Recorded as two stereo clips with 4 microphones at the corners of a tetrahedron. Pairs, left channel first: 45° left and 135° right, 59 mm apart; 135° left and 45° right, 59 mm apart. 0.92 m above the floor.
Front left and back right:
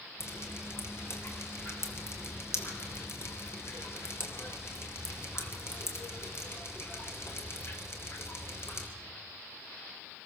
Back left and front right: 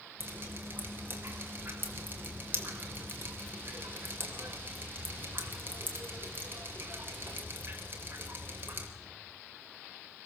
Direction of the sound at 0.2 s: 5° left.